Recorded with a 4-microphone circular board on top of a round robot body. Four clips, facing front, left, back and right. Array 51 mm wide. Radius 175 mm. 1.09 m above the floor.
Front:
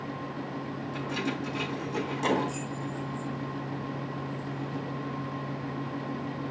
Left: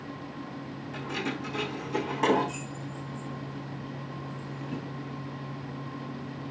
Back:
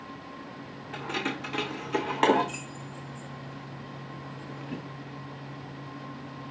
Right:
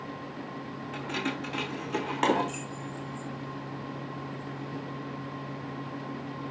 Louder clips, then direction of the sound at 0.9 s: Even, back 1 dB; 150° right.